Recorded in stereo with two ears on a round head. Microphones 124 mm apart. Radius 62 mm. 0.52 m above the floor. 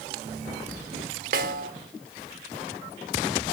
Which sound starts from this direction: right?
A snare drum, at 1.3 s.